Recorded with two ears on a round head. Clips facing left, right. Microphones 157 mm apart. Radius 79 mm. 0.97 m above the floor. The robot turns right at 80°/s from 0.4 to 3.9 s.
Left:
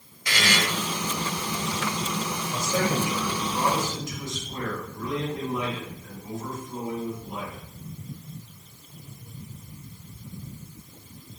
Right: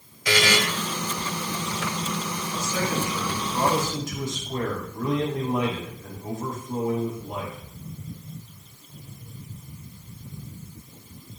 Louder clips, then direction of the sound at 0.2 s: Right 5 dB; 65° right (ahead or behind).